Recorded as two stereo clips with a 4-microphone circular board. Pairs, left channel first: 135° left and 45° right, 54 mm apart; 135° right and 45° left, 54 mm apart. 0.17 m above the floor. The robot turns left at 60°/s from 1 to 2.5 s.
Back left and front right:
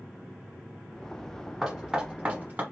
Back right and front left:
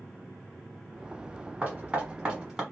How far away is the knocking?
About 1.3 m.